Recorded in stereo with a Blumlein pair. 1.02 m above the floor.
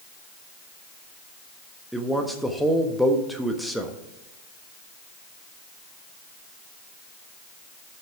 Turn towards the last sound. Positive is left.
turn(degrees=0)